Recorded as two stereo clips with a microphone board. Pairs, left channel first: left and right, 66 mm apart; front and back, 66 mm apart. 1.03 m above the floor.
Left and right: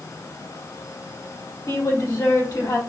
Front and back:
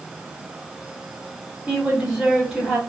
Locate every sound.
1.7 s a woman speaking: 90° left, 1.9 m